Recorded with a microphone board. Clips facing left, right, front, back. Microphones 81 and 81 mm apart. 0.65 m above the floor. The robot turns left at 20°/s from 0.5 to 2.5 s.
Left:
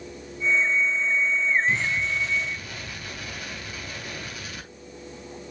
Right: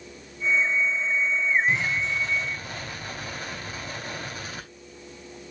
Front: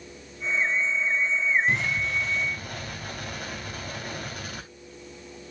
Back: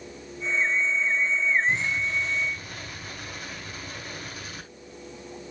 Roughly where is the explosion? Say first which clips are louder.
Even, even; ahead.